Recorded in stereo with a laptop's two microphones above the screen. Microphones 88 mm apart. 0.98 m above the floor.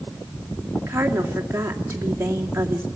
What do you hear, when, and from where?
0.8 s a woman speaking: 30° right (ahead or behind), 2.5 m